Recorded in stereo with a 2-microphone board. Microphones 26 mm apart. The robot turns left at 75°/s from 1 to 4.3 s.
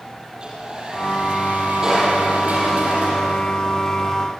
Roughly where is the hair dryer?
Ahead right.